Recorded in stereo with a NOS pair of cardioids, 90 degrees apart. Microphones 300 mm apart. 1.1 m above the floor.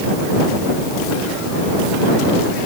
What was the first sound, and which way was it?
Only background noise.